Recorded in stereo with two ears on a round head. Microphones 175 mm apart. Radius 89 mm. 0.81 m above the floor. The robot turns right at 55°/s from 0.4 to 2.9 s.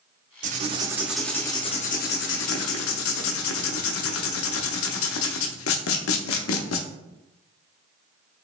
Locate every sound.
0.4 s writing: 40° right, 0.6 m; by 6.9 s 95° left, 0.6 m